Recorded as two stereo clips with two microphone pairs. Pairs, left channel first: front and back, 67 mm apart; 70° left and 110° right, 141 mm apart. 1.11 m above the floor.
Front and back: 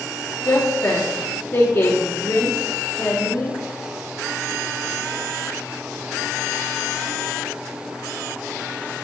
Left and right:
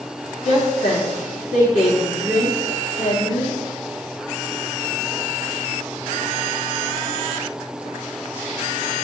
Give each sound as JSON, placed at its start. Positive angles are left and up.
{"t": 0.5, "sound": "a woman speaking", "azimuth_deg": 60, "distance_m": 3.0}